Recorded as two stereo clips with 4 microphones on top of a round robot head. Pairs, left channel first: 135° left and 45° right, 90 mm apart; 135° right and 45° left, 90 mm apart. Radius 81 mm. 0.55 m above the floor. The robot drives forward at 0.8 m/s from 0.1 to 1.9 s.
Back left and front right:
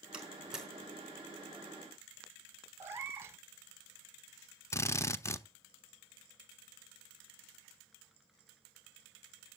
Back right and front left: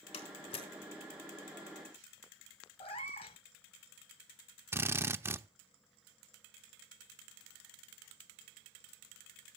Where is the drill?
90° left, 0.7 m.